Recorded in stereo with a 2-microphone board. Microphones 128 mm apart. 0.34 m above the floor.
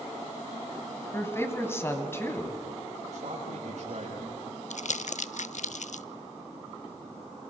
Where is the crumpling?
70° left (ahead or behind), 0.5 m.